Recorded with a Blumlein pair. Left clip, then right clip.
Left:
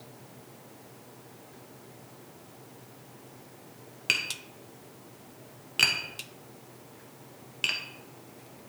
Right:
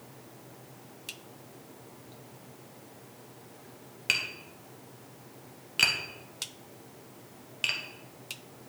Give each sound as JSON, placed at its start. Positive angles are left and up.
{"t": 4.1, "sound": "tapping", "azimuth_deg": 0, "distance_m": 1.0}